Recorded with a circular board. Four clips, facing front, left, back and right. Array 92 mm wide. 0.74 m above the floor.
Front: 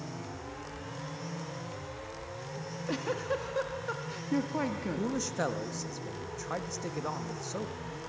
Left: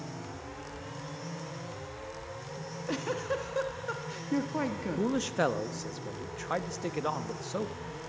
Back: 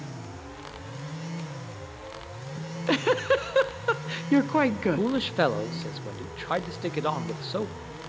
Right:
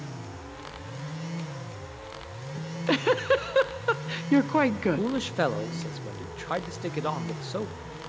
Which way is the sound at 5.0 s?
165° right.